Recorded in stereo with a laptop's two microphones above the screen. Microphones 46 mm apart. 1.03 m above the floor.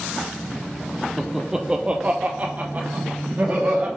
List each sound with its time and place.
1.2 s laughter: centre (ahead or behind), 0.5 m; by 3.9 s 40° right (ahead or behind), 1.3 m